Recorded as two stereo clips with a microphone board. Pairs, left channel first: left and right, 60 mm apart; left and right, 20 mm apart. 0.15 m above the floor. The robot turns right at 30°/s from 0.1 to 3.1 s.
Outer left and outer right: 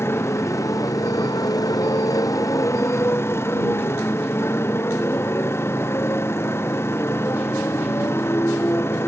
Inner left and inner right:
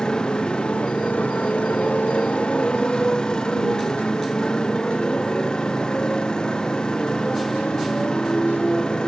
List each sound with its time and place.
0.0 s a motorcycle: 45° left; by 9.1 s 135° left